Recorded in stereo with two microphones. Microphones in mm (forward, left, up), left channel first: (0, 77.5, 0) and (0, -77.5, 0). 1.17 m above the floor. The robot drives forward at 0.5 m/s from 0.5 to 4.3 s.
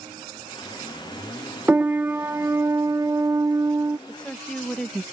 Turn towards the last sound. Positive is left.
turn(degrees=5)  # may be behind; listen again after turning